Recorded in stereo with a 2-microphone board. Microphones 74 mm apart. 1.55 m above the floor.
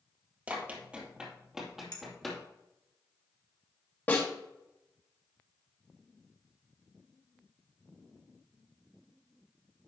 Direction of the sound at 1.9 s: 60° left (ahead or behind).